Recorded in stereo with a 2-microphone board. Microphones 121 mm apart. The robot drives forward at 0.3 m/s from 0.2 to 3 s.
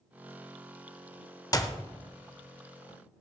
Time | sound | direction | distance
1.5 | a clap | 30° left (ahead or behind) | 0.9 m